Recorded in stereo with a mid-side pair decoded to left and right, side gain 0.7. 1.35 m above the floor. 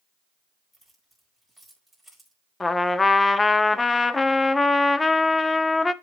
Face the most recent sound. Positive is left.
turn(degrees=15)